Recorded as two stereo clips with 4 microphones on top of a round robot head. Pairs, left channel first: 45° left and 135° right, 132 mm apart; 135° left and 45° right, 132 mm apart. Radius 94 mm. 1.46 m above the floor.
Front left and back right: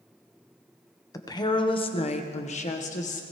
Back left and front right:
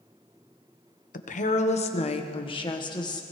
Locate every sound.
1.1 s a woman speaking: 110° left, 1.2 m; by 3.2 s 75° left, 1.8 m